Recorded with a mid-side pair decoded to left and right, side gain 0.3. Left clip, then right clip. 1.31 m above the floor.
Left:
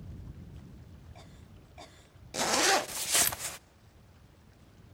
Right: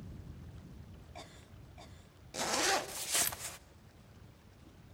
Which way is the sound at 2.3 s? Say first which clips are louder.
Left 6 dB; 55° left.